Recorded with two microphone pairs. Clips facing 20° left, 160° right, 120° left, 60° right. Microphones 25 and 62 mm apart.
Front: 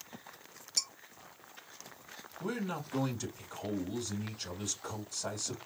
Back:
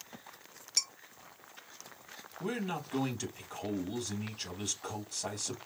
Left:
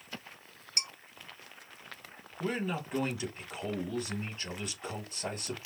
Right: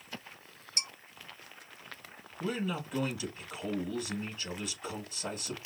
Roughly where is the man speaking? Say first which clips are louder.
Back 1 dB, left 1 dB; behind.